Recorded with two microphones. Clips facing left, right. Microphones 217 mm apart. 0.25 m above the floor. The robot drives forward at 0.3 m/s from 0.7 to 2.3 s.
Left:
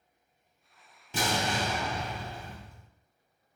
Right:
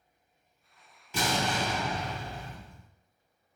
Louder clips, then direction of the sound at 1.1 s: Even; 30° left (ahead or behind).